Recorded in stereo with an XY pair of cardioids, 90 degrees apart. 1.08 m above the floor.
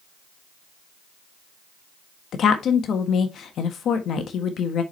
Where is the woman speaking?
70° left, 1.3 m.